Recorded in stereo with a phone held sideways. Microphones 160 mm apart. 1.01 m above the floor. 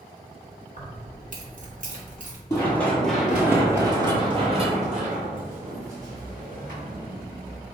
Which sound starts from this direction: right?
Keys jangling, at 0.8 s.